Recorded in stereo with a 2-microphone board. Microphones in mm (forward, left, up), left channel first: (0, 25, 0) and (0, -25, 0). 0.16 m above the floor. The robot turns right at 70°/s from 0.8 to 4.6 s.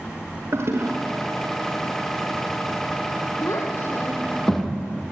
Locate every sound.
0.5 s a toilet flushing: 55° right (ahead or behind), 4.5 m; by 0.9 s 65° right (ahead or behind), 4.5 m
3.4 s a child speaking: 80° left, 4.5 m; by 4.7 s 5° left (ahead or behind), 4.5 m